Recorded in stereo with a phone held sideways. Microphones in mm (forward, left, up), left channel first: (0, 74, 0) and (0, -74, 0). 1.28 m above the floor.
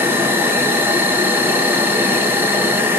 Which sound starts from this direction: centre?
An insect, at 0.0 s.